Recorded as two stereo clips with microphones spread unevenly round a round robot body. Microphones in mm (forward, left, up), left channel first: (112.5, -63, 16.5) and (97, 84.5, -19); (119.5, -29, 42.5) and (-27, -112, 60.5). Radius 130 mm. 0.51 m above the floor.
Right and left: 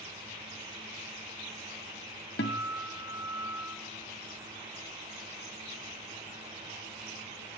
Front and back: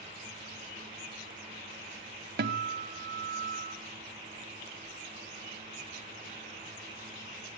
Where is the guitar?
125° right, 1.4 m.